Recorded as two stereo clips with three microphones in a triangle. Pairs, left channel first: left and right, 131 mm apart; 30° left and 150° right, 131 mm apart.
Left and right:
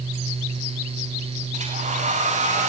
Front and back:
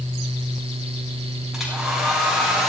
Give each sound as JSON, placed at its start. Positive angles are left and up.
{"t": 1.5, "sound": "a hair dryer", "azimuth_deg": -65, "distance_m": 10.0}